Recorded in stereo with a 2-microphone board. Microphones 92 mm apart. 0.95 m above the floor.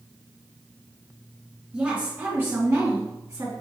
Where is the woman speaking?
10° right (ahead or behind), 1.6 m; by 3.5 s 40° right (ahead or behind), 2 m.